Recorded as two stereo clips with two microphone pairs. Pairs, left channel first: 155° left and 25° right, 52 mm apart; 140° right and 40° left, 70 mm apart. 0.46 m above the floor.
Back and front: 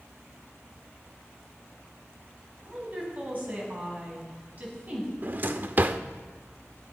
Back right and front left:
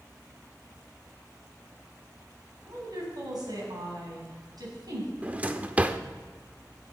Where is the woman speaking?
25° left, 4 m.